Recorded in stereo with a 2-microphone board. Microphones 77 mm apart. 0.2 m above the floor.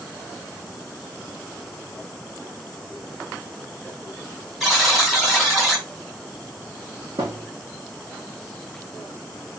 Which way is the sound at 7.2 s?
80° right.